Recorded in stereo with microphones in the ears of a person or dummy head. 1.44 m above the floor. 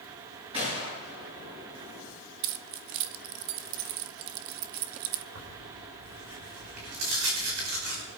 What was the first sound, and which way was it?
A gunshot, 30° right (ahead or behind).